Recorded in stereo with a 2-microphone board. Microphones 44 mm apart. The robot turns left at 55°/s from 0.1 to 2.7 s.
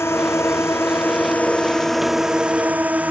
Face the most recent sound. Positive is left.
turn(degrees=-35)